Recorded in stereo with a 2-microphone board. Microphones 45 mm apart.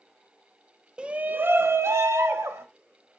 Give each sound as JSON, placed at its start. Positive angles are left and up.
{"t": 1.0, "sound": "a shout", "side_deg": -20, "distance_m": 0.5}